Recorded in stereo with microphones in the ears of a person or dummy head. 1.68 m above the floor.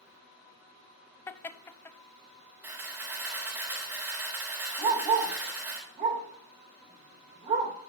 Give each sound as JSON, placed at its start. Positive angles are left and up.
{"t": 1.3, "sound": "laughter", "side_deg": 15, "distance_m": 0.7}
{"t": 2.6, "sound": "a camera shutter", "side_deg": -10, "distance_m": 3.5}
{"t": 4.8, "sound": "a dog barking", "side_deg": -30, "distance_m": 2.0}